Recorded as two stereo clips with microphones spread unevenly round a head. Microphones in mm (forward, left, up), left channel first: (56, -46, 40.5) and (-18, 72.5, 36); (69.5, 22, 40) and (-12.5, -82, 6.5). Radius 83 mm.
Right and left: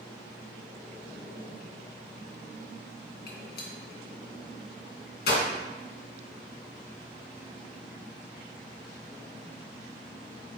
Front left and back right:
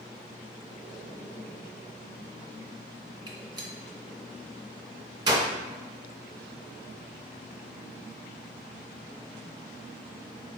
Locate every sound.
3.3 s a gunshot: 70° right, 2 m